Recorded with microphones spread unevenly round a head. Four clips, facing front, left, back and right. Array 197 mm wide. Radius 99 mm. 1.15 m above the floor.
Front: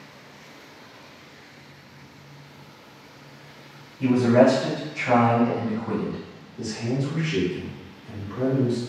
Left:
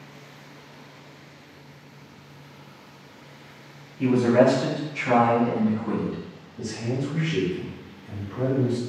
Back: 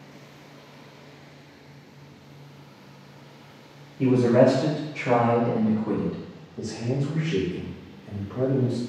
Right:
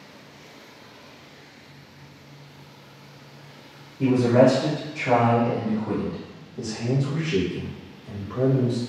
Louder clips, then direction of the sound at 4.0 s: Right 1 dB, front 1 dB; 165° right.